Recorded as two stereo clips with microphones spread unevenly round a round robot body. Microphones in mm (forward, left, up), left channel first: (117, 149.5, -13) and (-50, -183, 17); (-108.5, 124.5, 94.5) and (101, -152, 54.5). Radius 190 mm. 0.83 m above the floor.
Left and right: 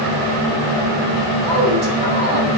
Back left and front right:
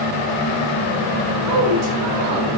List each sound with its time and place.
1.4 s a woman speaking: 40° right, 4 m